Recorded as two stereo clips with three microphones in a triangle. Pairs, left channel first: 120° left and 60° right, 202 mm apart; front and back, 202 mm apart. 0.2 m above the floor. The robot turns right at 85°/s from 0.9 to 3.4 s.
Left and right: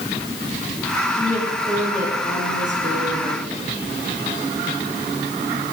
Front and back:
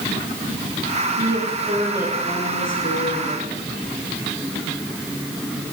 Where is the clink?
No clink in this recording.